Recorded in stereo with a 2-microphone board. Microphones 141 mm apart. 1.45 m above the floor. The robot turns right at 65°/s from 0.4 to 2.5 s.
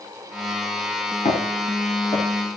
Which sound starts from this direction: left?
Footsteps, at 1.2 s.